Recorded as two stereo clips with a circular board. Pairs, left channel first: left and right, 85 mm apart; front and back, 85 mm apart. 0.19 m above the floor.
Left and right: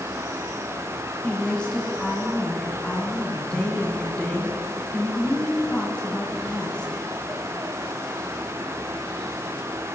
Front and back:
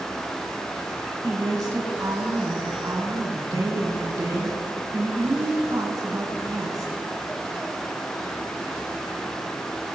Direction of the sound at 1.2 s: 165° left.